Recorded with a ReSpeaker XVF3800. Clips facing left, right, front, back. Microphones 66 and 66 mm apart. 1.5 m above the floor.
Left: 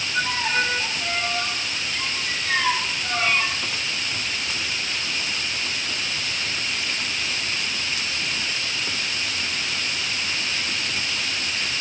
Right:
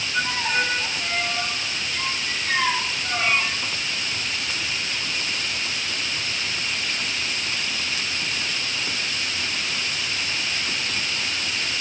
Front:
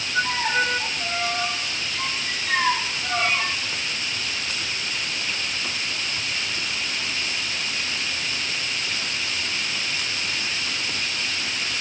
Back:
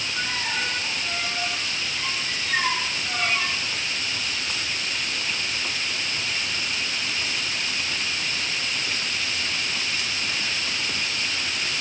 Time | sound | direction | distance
0.1 | a violin | 10° right | 4 m